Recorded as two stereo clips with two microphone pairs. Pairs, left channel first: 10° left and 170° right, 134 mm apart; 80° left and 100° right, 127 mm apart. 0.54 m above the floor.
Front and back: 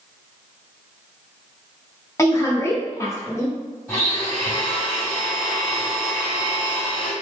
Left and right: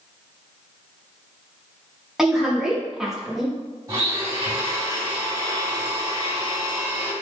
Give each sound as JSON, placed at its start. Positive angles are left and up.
{"t": 2.2, "sound": "a woman speaking", "azimuth_deg": -15, "distance_m": 0.8}
{"t": 3.9, "sound": "a blender", "azimuth_deg": -60, "distance_m": 1.9}